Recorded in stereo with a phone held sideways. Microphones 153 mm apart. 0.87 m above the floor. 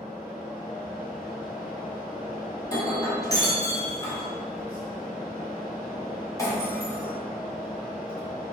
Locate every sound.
0.0 s a fan: 75° left (ahead or behind), 1.5 m
2.6 s breaking glass: 25° left (ahead or behind), 1.5 m